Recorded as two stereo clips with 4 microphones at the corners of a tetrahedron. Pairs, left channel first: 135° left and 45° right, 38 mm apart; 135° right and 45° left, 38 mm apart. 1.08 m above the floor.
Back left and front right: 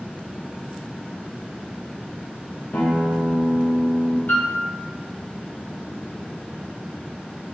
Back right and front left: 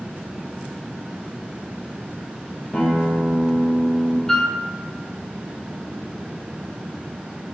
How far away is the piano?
About 1.7 m.